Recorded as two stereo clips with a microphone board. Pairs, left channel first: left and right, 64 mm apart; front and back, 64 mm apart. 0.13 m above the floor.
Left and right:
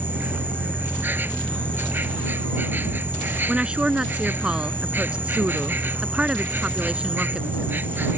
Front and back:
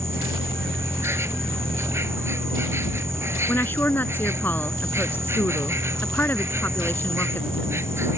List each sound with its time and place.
0.0 s an insect: 145° right
3.5 s a woman speaking: 30° right